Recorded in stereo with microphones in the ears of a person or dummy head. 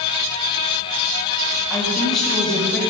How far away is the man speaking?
About 3 m.